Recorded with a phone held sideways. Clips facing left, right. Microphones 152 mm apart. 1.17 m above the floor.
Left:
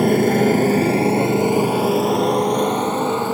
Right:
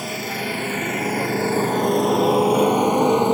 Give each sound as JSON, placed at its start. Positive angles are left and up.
{"t": 0.0, "sound": "a motorcycle", "side_deg": 55}